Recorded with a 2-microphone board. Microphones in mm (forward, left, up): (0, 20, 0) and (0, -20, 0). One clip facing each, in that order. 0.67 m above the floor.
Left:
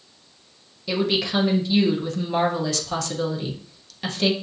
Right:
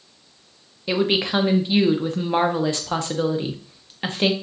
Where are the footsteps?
I don't hear footsteps.